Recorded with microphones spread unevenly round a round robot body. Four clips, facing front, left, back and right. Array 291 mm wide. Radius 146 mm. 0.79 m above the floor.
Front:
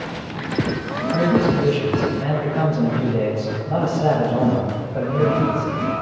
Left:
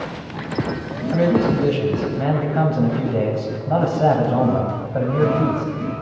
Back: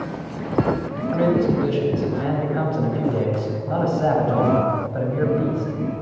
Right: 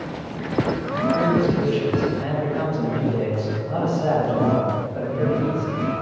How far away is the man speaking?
About 4 m.